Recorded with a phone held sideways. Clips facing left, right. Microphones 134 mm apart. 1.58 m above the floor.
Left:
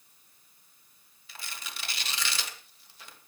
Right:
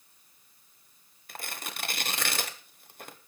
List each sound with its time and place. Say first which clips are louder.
1.3 s tearing paper: right 5 dB; 55° right (ahead or behind), 1.2 m